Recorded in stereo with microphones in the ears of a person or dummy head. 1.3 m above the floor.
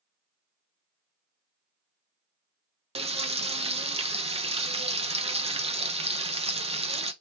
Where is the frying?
30° right (ahead or behind), 0.8 m.